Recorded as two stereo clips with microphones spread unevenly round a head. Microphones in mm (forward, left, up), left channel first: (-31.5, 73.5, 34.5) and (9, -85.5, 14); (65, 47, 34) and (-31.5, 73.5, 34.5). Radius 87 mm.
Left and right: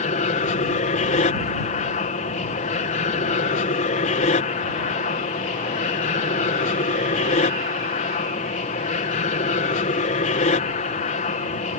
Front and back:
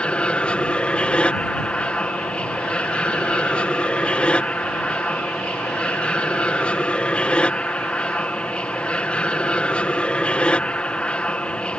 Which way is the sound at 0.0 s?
60° left.